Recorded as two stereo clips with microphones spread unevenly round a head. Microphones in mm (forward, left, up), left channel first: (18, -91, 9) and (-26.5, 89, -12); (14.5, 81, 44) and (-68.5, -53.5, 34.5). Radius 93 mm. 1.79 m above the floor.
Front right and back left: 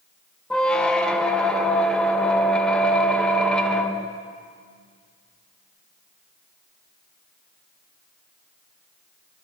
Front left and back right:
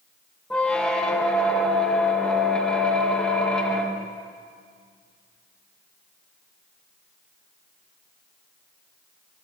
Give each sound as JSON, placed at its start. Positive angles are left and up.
{"t": 0.5, "sound": "a squeak", "azimuth_deg": -15, "distance_m": 0.7}